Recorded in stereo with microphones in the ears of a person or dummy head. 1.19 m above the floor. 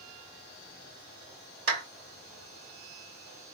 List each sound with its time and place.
1.7 s a clap: 45° right (ahead or behind), 2 m